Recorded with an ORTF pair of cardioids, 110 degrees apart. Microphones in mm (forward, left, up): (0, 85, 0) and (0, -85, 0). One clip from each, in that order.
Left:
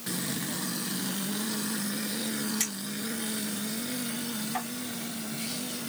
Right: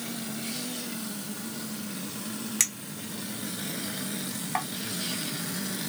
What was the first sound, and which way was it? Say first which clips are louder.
A clink: right 2 dB; 45° right.